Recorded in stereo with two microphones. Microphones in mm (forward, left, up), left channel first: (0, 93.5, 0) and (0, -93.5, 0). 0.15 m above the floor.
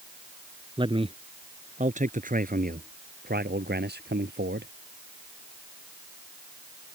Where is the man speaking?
25° right (ahead or behind); by 4.7 s 65° right (ahead or behind).